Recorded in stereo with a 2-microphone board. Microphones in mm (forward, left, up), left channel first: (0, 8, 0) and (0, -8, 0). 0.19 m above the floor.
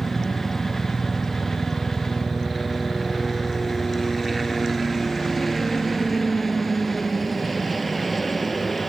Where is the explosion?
No explosion in this recording.